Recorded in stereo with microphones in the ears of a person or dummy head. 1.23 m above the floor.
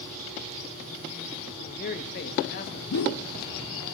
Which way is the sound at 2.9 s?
70° left (ahead or behind).